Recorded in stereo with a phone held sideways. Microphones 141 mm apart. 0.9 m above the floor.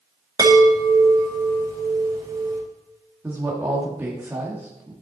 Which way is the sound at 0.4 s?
25° right (ahead or behind).